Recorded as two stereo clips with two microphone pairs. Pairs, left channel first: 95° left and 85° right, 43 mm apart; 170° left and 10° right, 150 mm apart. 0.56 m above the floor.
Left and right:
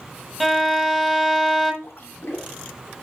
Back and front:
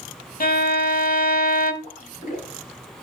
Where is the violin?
Straight behind, 0.9 m.